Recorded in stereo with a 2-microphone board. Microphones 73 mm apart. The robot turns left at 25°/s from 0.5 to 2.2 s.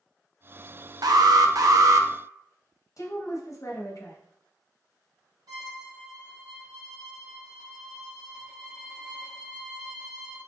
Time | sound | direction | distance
1.0 | an alarm | 70° right (ahead or behind) | 0.5 m
3.0 | a woman speaking | 55° left (ahead or behind) | 1.0 m
5.5 | a violin | 70° right (ahead or behind) | 1.2 m